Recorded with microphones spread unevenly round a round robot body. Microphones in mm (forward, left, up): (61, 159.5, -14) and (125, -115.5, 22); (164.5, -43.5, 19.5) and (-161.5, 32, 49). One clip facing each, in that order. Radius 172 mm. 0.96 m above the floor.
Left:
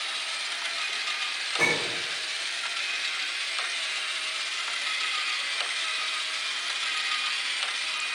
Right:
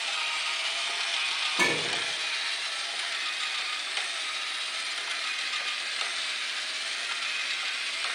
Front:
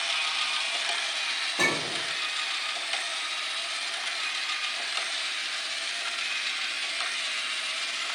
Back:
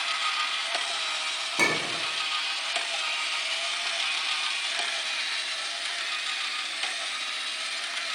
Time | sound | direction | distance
1.6 | a clink | 135° right | 1.8 m